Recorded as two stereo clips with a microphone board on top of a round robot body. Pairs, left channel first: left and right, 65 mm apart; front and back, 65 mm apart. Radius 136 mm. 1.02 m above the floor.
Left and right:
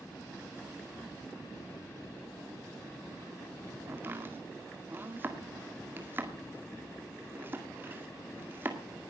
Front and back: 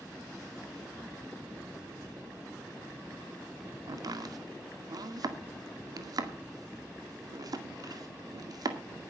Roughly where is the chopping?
Behind right.